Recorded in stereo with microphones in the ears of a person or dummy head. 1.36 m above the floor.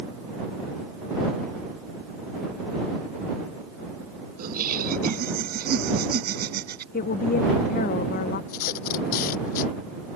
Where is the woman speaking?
55° left (ahead or behind).